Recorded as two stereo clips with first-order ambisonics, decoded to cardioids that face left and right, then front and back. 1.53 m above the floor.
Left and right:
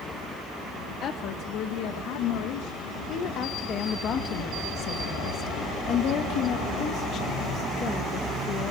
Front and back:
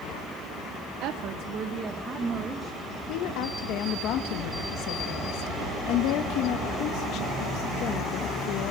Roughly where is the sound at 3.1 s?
Ahead left.